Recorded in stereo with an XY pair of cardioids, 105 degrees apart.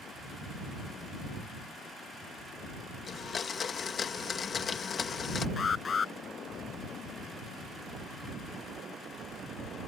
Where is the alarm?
40° left.